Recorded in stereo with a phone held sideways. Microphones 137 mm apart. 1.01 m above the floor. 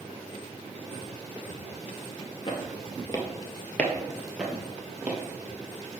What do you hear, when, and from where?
2.5 s footsteps: 40° left (ahead or behind), 1.2 m; by 5.2 s 15° right (ahead or behind), 1.7 m